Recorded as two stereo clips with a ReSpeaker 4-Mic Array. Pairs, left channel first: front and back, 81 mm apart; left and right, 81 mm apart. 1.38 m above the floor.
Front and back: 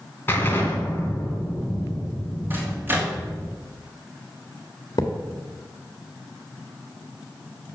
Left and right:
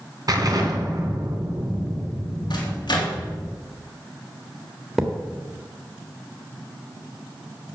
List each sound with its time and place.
0.3 s an explosion: 60° right, 2.5 m
2.5 s a microwave: 115° left, 2.5 m
5.0 s a thud: 5° right, 1.6 m